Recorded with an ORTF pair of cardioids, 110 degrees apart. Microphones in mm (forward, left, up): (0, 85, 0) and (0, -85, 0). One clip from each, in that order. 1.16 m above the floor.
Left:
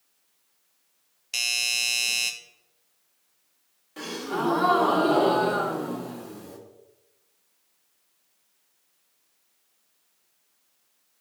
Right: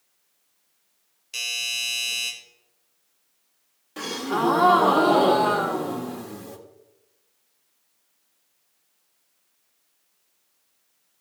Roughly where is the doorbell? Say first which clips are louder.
Left 2 dB; ahead left.